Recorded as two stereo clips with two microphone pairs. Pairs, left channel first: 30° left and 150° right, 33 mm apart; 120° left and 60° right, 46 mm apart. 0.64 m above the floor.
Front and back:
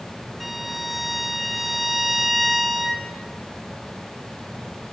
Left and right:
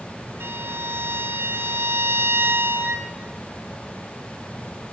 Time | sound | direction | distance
0.4 | a violin | 65° right | 1.5 m